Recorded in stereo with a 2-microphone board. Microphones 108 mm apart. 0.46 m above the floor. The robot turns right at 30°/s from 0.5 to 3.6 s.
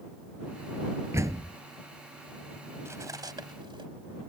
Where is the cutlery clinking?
25° right (ahead or behind); by 3.9 s 50° right (ahead or behind).